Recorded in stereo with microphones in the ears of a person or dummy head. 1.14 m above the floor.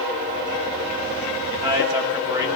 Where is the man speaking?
20° right (ahead or behind), 6.5 m.